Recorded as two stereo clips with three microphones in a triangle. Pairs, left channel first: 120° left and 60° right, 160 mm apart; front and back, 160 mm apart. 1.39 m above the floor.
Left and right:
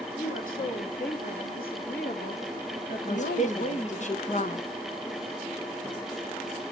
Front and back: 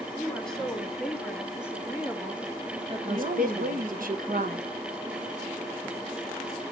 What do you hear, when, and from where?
0.2 s a woman speaking: 85° left, 2.5 m; by 4.0 s 175° left, 1.0 m
3.0 s a woman speaking: 155° left, 1.2 m